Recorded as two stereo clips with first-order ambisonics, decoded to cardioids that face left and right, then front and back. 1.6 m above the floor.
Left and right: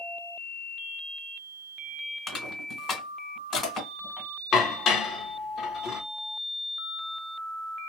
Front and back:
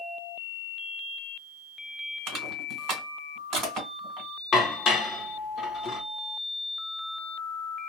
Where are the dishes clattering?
50° left, 0.8 m.